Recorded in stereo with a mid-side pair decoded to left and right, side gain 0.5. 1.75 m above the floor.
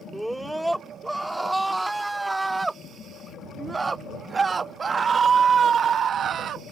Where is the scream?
Straight ahead; by 6.7 s 60° right.